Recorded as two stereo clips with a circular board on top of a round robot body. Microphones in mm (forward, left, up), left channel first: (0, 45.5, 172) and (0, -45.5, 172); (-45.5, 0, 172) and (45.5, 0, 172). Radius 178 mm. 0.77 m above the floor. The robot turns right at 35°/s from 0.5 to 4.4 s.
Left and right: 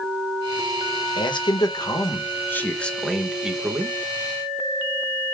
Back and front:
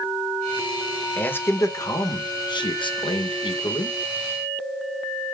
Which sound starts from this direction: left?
A man speaking, at 1.2 s.